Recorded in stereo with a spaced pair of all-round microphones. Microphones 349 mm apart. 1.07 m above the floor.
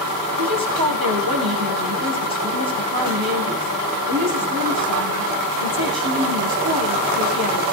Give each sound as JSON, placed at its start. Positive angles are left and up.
{"t": 0.4, "sound": "a woman speaking", "side_deg": -85, "distance_m": 6.0}